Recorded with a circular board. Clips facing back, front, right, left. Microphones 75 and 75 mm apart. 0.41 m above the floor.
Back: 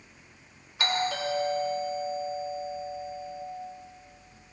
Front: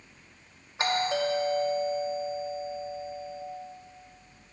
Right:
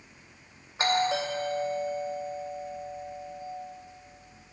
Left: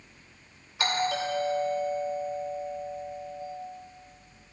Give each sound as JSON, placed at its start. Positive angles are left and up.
{"t": 0.8, "sound": "a doorbell", "azimuth_deg": -50, "distance_m": 2.5}